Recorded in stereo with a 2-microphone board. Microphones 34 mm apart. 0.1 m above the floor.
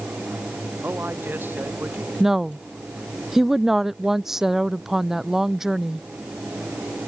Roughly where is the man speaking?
Right.